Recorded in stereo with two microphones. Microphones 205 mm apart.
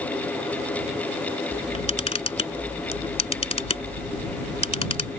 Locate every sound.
1.5 s a camera shutter: 30° left (ahead or behind)